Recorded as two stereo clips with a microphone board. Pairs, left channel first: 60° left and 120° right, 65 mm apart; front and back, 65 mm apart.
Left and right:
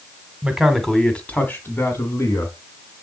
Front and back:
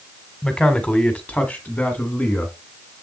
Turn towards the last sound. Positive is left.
turn(degrees=60)